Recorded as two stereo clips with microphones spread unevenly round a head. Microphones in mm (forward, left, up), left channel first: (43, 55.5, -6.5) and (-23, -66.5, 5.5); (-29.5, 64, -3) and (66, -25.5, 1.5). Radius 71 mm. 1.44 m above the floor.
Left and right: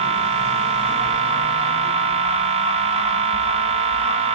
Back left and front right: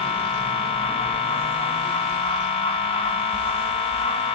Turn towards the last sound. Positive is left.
turn(degrees=-170)